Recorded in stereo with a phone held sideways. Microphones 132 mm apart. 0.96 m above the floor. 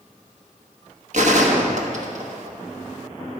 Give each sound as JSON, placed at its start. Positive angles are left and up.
{"t": 1.1, "sound": "a gunshot", "side_deg": -55, "distance_m": 1.1}